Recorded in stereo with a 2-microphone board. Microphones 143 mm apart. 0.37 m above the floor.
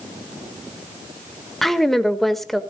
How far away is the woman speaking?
About 1.1 m.